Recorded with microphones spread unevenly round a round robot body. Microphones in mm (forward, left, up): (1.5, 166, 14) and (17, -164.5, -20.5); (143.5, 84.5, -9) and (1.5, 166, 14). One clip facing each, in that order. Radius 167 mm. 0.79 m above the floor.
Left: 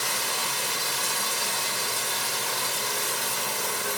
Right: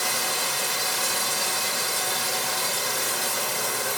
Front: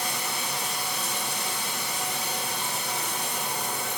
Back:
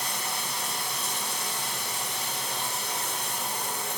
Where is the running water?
50° right, 3 m.